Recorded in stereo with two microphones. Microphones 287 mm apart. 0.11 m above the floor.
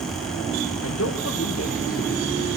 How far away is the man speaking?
About 3.5 m.